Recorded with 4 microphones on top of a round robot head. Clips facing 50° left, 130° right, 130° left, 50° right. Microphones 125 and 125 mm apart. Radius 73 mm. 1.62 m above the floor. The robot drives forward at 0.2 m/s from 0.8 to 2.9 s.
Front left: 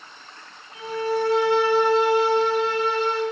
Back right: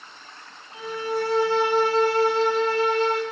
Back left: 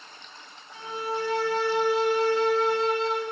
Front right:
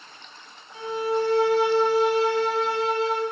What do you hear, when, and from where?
0.7 s a violin: 90° right, 1.3 m; by 3.2 s 130° right, 1.4 m